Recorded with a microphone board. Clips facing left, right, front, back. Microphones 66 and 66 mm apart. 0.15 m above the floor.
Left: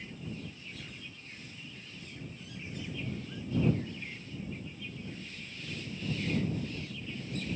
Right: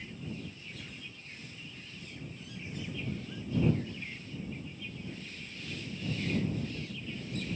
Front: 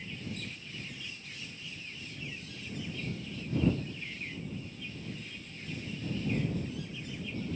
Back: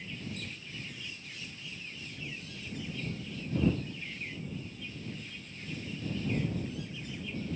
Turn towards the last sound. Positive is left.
No sound to turn to.